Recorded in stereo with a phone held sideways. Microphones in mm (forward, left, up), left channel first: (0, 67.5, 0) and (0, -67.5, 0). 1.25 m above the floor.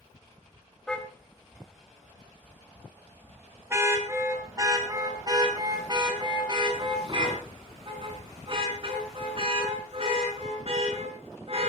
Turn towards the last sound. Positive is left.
turn(degrees=-50)  # may be behind; listen again after turning